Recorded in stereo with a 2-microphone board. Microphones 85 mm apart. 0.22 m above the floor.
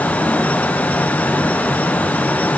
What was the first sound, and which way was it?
Only background noise.